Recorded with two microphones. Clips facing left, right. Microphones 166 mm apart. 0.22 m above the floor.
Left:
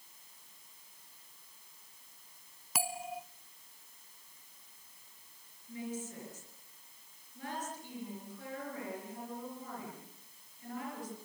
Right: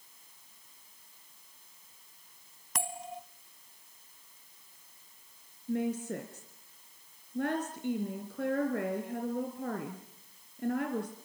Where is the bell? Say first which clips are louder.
Left 1 dB; 5° left (ahead or behind), 0.6 m.